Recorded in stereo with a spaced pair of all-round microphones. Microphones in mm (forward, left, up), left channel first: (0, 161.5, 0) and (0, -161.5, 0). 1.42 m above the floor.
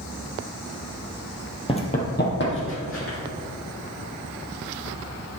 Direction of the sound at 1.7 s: 15° left (ahead or behind).